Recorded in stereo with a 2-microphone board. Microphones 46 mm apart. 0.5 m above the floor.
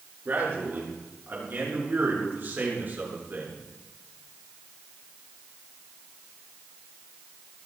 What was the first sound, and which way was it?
A man speaking, 45° right (ahead or behind).